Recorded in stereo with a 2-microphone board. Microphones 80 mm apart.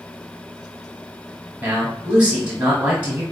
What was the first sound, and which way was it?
A man speaking, 20° right (ahead or behind).